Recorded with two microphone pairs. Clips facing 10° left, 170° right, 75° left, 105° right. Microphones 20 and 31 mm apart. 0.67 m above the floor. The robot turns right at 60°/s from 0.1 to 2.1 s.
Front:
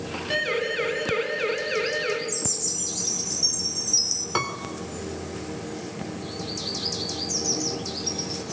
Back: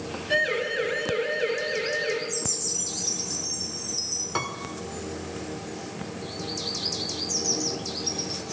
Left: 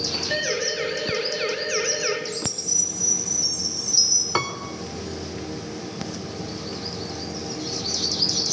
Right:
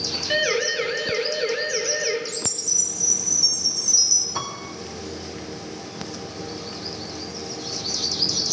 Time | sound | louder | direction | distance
0.3 | a siren | back 1 dB, right 5 dB | 60° right | 4.5 m
2.3 | a chime | even, even | 30° left | 2.5 m
4.3 | a piano | front 3 dB, left 5 dB | 90° left | 2.5 m